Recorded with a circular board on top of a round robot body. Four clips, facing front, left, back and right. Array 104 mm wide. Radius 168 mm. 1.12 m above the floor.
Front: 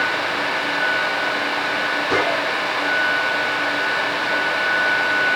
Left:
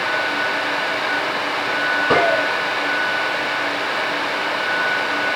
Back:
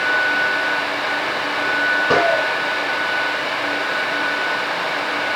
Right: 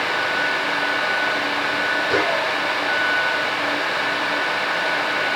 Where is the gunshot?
135° left, 6 m.